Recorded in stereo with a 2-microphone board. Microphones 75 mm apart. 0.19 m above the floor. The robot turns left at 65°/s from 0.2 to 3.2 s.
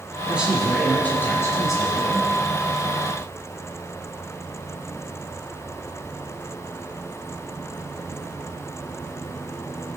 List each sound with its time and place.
0.3 s a man speaking: 155° right, 1.7 m; by 2.3 s 70° left, 1.7 m